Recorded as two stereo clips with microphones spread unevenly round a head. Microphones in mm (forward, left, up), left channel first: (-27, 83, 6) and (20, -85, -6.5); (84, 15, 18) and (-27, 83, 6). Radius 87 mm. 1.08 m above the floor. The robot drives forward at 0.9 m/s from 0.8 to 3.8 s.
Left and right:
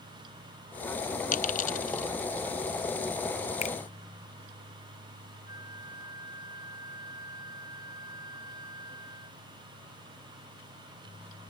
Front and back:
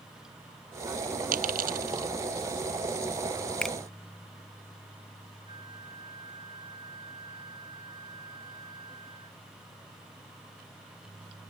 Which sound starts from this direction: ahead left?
A finger snap, at 3.6 s.